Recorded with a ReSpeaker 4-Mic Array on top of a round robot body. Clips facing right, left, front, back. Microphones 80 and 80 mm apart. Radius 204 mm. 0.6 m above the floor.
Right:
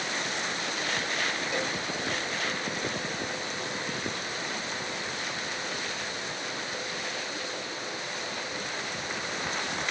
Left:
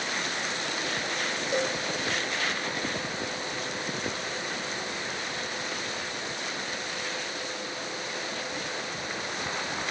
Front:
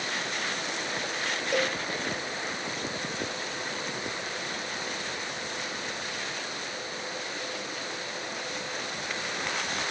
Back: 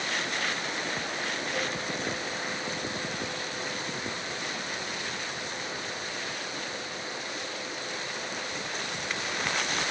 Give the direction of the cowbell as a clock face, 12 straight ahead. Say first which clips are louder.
Left 7 dB, front 7 dB; 11 o'clock.